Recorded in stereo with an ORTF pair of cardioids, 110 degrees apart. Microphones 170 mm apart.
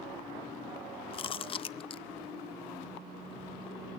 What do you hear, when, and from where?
1.1 s chewing: 35° left, 0.5 m